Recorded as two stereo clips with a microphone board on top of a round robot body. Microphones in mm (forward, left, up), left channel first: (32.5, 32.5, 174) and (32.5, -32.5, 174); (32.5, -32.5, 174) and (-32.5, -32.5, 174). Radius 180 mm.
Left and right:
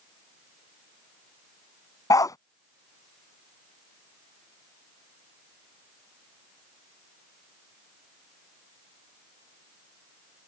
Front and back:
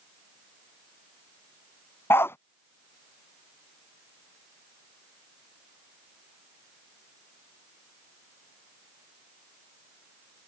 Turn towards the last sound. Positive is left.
turn(degrees=55)